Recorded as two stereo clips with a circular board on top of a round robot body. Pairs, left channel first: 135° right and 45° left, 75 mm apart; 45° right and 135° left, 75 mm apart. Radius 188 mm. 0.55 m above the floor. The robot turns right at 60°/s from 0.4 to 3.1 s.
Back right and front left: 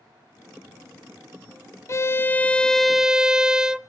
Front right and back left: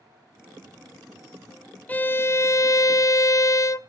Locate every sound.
1.9 s a violin: 105° right, 0.6 m; by 3.8 s 30° right, 0.6 m